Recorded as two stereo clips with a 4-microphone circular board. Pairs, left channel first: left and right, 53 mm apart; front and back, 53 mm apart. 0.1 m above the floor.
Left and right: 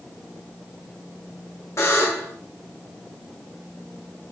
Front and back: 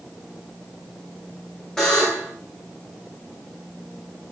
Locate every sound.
1.8 s a buzzer: 75° left, 5.5 m